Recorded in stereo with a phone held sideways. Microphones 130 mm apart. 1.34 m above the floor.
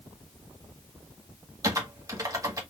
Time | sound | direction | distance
1.6 | typing on a keyboard | 25° right (ahead or behind) | 1.3 m